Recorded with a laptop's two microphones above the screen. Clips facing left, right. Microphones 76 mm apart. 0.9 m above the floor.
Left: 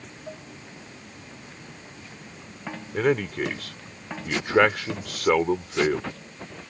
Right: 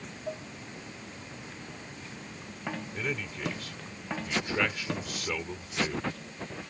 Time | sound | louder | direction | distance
0.3 | dishes clattering | right 3 dB | 10° right (ahead or behind) | ?
2.9 | a man speaking | left 18 dB | 60° left (ahead or behind) | ?